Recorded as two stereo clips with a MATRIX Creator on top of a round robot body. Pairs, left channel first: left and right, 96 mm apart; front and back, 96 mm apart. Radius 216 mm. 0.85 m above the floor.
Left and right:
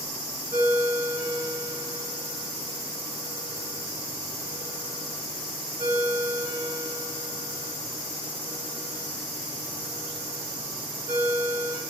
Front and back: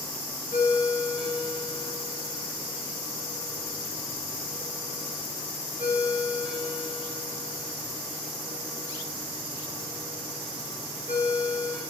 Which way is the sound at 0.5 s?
45° right.